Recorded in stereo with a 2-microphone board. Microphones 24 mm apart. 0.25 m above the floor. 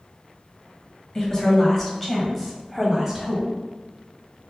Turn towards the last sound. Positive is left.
turn(degrees=-10)  # may be behind; listen again after turning